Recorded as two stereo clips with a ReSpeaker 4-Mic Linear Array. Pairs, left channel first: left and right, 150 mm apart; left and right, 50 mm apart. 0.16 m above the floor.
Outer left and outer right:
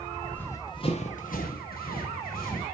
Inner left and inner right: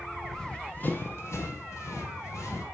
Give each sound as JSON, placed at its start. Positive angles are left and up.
{"t": 0.2, "sound": "running footsteps", "side_deg": 5, "distance_m": 1.6}